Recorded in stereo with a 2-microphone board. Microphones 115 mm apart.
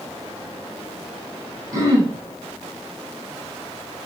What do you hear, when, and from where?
1.7 s throat clearing: 30° right (ahead or behind), 9.5 m